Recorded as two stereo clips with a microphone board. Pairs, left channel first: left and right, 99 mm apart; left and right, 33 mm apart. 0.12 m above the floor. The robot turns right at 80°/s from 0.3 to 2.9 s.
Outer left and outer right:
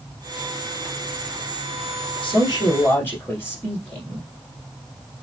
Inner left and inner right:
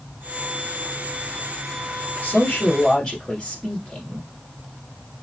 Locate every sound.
2.2 s a man speaking: 100° left, 2.5 m; by 4.3 s 155° left, 2.5 m